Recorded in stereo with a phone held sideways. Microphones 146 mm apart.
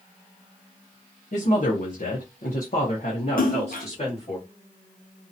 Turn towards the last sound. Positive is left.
turn(degrees=75)  # may be behind; listen again after turning